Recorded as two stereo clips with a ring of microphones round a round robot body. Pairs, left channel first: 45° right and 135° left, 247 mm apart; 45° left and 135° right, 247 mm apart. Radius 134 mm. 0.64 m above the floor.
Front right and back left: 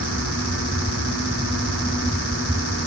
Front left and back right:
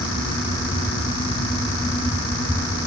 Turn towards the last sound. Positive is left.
No sound to turn to.